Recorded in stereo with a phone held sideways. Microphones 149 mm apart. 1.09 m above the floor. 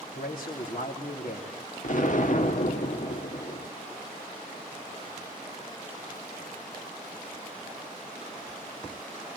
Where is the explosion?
60° left (ahead or behind), 1.4 m.